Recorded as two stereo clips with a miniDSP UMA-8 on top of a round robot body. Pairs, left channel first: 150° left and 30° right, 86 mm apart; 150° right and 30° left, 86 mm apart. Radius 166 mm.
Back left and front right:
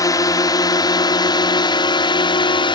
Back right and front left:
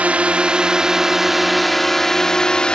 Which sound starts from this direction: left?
A drone, at 0.0 s.